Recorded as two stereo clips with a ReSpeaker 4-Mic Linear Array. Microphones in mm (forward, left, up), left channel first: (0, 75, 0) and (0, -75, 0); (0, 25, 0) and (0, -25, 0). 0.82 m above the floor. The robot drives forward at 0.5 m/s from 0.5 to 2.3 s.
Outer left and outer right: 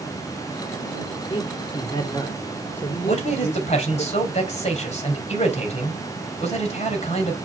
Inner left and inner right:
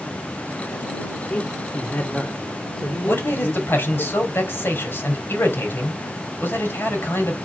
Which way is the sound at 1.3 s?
40° left (ahead or behind).